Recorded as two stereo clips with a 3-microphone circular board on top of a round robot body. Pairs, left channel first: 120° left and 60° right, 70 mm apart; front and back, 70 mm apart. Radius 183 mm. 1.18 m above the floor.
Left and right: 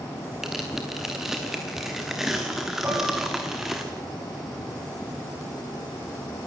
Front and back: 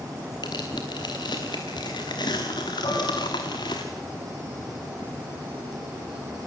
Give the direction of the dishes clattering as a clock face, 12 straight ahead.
12 o'clock.